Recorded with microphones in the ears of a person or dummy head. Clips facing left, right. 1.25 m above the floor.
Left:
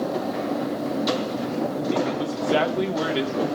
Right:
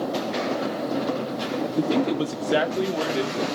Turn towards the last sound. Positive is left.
turn(degrees=10)  # may be behind; listen again after turning